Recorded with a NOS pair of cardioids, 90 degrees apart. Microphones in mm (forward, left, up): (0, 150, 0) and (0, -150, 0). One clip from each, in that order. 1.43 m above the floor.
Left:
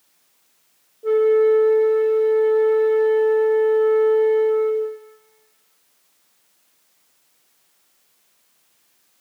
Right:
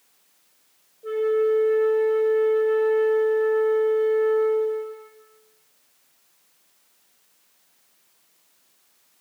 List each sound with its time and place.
1.0 s a flute: 30° left, 0.8 m